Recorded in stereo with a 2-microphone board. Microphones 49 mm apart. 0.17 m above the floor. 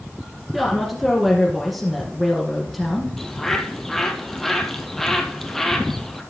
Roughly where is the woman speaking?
Centre.